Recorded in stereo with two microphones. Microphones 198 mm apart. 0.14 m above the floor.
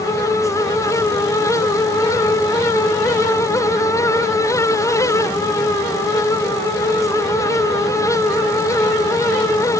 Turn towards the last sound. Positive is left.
No sound to turn to.